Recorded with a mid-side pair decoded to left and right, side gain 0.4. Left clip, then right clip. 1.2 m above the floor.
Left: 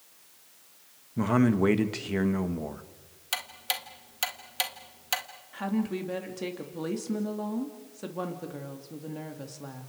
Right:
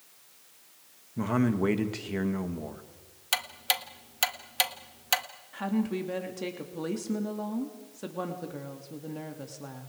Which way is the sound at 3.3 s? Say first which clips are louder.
Right 3 dB; 30° right.